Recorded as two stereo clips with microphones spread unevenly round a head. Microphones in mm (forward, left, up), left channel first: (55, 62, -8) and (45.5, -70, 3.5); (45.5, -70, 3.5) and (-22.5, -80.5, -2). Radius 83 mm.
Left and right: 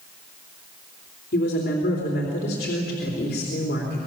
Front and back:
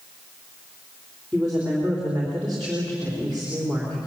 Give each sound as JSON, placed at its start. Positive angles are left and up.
{"t": 1.3, "sound": "a woman speaking", "azimuth_deg": 100, "distance_m": 3.5}